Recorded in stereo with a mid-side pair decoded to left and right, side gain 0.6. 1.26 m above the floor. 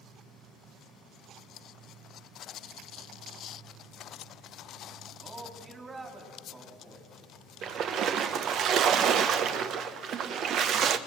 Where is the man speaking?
20° right, 3.5 m.